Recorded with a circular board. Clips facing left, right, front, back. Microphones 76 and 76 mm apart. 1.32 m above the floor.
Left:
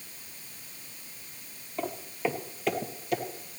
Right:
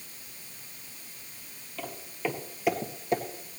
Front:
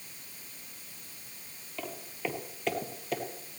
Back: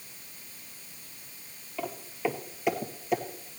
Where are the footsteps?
105° left, 1.5 m; by 3.2 s 110° right, 1.5 m.